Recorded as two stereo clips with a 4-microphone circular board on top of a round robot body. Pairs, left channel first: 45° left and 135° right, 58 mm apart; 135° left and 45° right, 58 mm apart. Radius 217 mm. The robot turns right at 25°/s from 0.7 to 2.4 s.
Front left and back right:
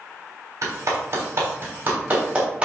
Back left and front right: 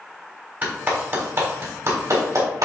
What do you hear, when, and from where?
0.6 s a clap: 105° right, 3.5 m; by 2.6 s 65° right, 3.5 m